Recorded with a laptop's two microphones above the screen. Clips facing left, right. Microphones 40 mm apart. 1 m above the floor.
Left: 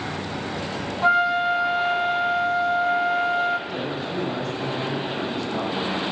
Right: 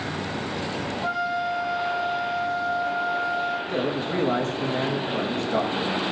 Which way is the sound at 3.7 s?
60° right (ahead or behind).